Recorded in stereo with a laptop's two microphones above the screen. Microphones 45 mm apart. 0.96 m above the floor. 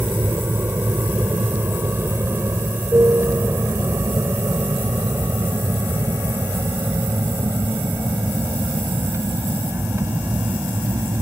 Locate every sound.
0.0 s an aircraft: 55° right (ahead or behind); by 11.2 s 80° right